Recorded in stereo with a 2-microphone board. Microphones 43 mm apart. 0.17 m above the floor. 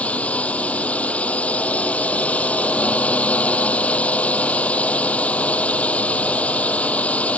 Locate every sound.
0.0 s a drone: 30° left (ahead or behind)